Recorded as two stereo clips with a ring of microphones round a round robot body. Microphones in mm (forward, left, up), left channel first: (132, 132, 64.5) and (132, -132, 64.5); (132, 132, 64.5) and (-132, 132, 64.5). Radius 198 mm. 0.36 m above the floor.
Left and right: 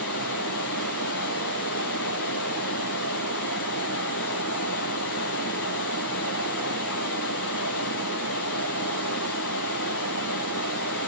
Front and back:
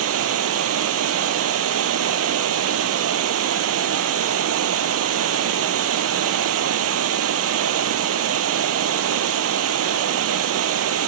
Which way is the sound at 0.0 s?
145° left.